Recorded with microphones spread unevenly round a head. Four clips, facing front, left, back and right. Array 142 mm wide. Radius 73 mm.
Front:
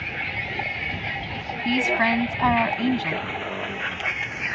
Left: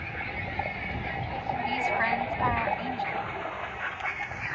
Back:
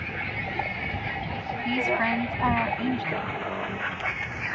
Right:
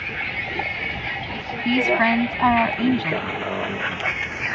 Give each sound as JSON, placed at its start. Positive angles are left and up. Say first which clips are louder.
{"t": 0.0, "sound": "a vehicle", "louder": "right 5 dB, front 1 dB", "azimuth_deg": -80}
{"t": 1.6, "sound": "a woman speaking", "louder": "right 10 dB, front 4 dB", "azimuth_deg": -60}